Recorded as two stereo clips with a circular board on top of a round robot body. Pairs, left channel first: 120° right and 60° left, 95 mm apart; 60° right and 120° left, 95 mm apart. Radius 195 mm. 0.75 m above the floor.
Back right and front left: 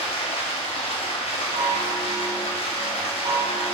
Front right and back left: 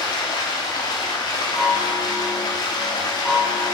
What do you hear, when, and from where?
0.0 s running water: 105° right, 0.8 m
1.6 s a chime: 25° left, 0.6 m